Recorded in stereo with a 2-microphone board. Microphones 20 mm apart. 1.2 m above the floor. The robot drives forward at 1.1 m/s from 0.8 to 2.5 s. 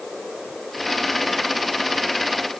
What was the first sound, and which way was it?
Only background noise.